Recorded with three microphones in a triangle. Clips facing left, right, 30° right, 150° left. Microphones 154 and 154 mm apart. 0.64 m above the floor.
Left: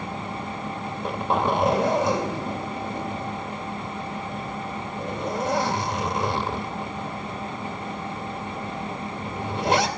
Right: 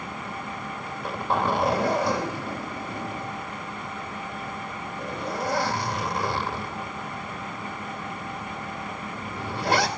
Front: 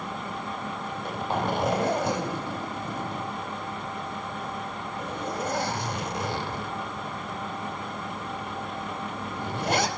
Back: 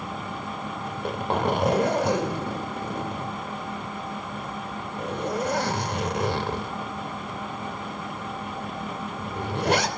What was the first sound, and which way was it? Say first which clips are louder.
A zipper: left 2 dB, back 4 dB; 155° left.